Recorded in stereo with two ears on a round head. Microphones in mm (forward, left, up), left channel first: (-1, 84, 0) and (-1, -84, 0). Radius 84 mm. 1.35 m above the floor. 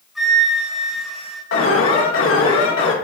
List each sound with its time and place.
0.1 s a flute: centre (ahead or behind), 2.5 m
1.5 s an alarm: 80° left, 1.7 m